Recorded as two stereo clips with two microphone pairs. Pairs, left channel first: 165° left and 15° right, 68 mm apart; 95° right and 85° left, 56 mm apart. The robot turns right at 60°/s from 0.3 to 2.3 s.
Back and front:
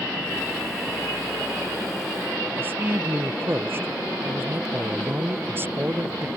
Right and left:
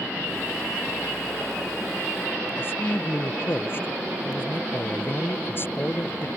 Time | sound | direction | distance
2.6 | a man speaking | 60° right | ?